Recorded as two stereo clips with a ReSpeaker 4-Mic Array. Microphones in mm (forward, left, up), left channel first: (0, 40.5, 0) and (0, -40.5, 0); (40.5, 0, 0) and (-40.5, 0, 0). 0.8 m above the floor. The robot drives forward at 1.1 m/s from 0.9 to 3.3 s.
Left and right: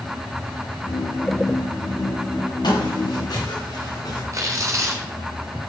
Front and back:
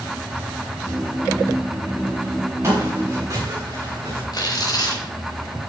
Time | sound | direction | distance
2.6 | footsteps | 125° left | 7 m
4.3 | tearing paper | 40° right | 3.5 m